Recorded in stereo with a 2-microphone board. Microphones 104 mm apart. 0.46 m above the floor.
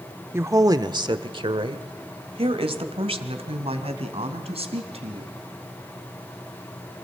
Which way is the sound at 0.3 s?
25° right (ahead or behind).